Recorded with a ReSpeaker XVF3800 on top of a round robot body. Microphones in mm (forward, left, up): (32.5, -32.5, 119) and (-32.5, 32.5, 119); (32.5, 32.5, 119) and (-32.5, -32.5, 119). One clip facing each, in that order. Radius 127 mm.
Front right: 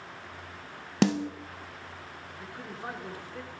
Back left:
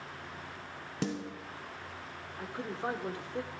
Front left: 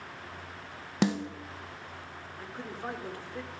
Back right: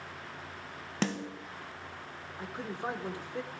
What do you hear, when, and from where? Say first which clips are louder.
1.0 s a snare drum: front right 10 dB, front left 5 dB; 30° right, 0.6 m
2.4 s a man speaking: back left 5 dB, back right 2 dB; 170° left, 1.1 m